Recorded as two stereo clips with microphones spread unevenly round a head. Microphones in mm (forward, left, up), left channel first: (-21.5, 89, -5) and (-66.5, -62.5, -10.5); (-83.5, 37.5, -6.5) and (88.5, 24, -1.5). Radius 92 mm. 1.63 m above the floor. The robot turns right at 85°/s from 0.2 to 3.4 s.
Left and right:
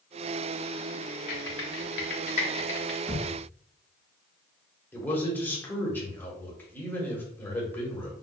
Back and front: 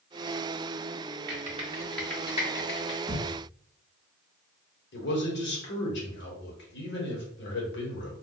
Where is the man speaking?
150° left, 1.3 m.